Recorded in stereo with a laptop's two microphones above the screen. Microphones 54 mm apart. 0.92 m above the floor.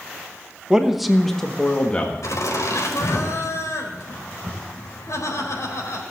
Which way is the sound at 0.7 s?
15° right (ahead or behind).